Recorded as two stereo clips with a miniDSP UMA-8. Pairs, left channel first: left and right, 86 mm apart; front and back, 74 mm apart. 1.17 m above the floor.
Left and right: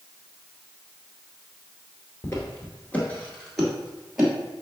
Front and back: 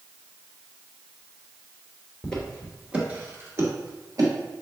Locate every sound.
2.2 s footsteps: 70° left, 1.3 m; by 4.3 s 175° right, 1.7 m